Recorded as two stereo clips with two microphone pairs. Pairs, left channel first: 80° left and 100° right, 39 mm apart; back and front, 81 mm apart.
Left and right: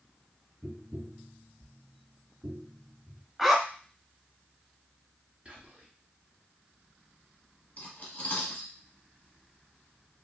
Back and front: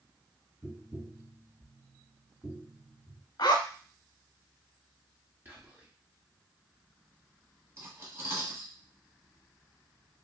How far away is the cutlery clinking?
About 1.0 m.